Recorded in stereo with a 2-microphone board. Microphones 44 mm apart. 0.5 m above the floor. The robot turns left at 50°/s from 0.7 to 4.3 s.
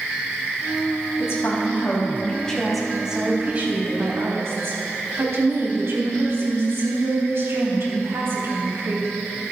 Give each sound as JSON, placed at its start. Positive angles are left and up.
{"t": 1.2, "sound": "a woman speaking", "azimuth_deg": 80, "distance_m": 3.5}